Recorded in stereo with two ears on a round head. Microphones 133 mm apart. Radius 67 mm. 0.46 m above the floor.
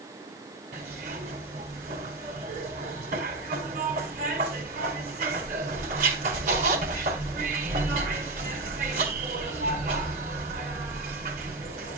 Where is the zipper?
50° right (ahead or behind), 4 m.